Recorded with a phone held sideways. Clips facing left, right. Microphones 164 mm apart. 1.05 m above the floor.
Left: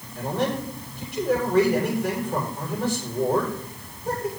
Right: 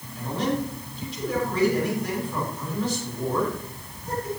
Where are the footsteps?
I don't hear footsteps.